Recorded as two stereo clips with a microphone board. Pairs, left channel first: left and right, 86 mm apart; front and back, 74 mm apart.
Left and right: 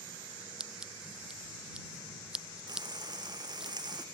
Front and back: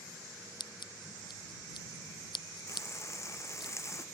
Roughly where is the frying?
Ahead right.